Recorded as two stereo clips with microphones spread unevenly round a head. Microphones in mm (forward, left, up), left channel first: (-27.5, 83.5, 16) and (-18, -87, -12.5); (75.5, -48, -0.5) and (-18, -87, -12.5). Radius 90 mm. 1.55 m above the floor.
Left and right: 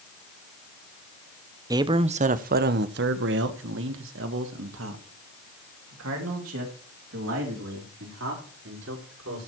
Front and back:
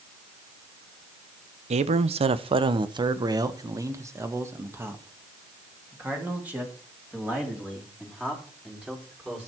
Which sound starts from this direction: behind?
A man speaking, at 1.7 s.